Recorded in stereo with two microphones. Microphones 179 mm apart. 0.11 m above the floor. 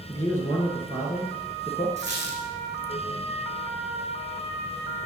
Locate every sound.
0.1 s a man speaking: 15° left (ahead or behind), 1.4 m
2.0 s a squeak: 40° right (ahead or behind), 1.4 m